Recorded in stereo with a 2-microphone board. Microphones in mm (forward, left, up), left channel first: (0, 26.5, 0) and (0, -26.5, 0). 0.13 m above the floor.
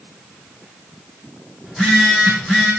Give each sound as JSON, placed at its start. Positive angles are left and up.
{"t": 1.6, "sound": "a phone buzzing", "side_deg": 20, "distance_m": 7.0}